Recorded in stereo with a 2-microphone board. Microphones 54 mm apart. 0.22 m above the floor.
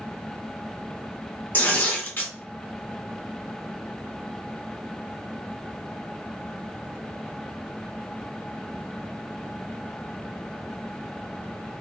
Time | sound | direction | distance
1.5 | tearing paper | 40° left (ahead or behind) | 1.6 m